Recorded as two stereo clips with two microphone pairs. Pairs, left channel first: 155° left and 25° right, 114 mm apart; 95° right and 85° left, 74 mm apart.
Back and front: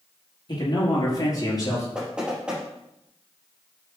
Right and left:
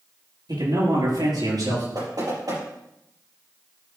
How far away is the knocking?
About 4.5 m.